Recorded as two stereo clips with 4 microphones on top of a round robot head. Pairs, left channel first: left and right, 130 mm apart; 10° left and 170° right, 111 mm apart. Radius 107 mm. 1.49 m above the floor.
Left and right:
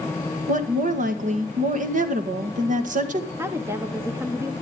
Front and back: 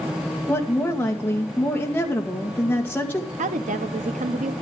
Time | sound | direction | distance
0.5 | a woman speaking | 70° right | 1.8 m
3.4 | a woman speaking | 165° right | 0.8 m